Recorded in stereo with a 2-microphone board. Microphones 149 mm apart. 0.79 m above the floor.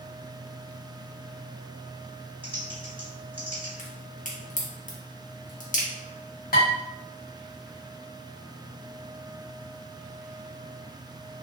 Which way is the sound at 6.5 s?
80° left.